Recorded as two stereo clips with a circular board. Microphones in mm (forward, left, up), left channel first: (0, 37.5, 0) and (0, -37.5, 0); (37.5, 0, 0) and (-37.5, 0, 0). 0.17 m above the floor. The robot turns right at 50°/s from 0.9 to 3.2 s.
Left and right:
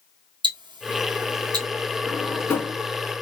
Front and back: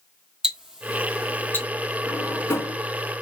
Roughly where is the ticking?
Right.